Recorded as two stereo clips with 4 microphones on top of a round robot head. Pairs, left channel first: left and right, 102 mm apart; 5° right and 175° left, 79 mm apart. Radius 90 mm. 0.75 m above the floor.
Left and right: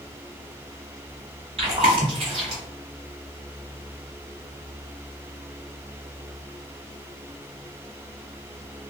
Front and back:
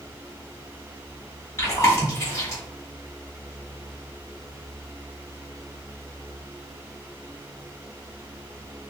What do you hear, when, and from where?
1.6 s chewing: 65° right, 1.3 m